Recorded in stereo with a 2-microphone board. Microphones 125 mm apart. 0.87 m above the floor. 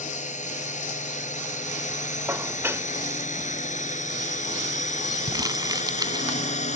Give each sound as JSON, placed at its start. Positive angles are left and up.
{"t": 0.0, "sound": "a drone", "side_deg": 80}
{"t": 2.3, "sound": "dishes clattering", "side_deg": -20}
{"t": 5.3, "sound": "crumpling", "side_deg": -30}